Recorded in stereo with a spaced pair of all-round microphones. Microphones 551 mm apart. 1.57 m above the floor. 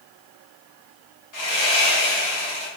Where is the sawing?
35° left (ahead or behind), 0.8 m.